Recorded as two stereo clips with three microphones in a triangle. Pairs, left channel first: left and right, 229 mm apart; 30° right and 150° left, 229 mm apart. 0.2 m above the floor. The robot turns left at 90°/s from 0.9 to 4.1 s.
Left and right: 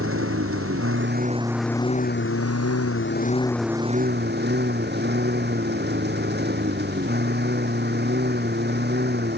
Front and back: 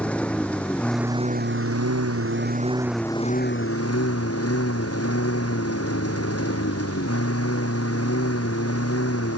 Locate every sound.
0.0 s a lawn mower: 115° right; by 9.4 s 45° right